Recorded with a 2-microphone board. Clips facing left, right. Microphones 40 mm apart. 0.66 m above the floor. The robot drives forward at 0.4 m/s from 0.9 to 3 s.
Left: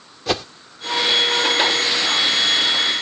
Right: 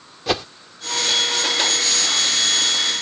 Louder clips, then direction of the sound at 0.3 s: Even; centre (ahead or behind).